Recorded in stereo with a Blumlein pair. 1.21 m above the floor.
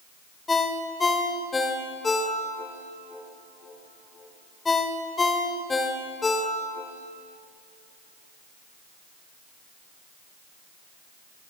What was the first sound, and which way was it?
A ringtone, 15° left.